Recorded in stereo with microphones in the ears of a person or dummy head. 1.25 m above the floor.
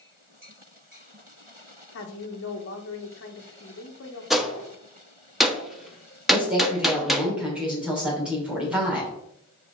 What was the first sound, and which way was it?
A woman speaking, 60° left (ahead or behind).